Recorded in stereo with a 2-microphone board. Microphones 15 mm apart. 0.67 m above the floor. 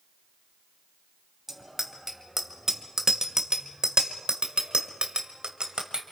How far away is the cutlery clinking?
No cutlery clinking in this recording.